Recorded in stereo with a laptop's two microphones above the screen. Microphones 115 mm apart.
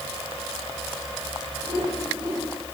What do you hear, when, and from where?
1.6 s a whoosh: 35° right (ahead or behind), 7 m